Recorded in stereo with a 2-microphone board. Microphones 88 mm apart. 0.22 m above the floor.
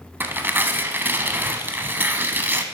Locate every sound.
0.2 s tearing paper: 25° right (ahead or behind), 0.8 m